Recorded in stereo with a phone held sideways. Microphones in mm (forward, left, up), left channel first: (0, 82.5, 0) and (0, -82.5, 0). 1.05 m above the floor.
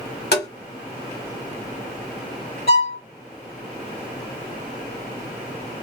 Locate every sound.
0.3 s tapping: 85° left, 2 m
2.7 s a violin: 65° left (ahead or behind), 2 m